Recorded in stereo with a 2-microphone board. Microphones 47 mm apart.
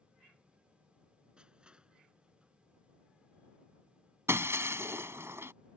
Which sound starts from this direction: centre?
Crushing, at 1.4 s.